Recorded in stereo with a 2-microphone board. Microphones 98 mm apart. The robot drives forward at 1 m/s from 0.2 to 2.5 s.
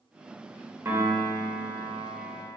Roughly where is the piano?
Right.